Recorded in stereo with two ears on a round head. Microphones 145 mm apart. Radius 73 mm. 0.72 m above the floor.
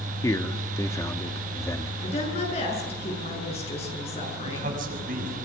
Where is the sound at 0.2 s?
20° left (ahead or behind), 1.4 m.